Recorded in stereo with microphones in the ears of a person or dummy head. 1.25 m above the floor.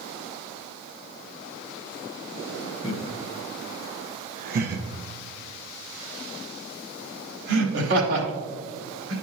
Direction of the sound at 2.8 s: 25° left (ahead or behind).